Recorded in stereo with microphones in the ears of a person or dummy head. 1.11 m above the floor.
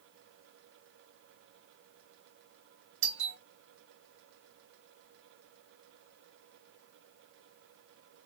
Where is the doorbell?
65° right (ahead or behind), 2.5 m.